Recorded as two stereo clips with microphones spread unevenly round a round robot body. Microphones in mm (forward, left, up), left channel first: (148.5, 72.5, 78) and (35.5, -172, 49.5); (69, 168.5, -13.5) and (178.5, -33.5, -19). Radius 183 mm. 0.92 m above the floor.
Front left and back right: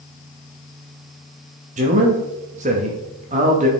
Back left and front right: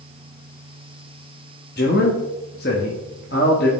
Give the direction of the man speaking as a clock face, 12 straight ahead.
6 o'clock.